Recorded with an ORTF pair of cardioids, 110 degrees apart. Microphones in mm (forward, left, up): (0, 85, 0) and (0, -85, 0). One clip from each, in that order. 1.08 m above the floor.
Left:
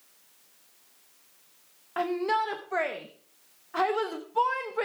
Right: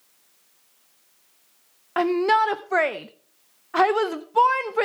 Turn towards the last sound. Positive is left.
turn(degrees=-40)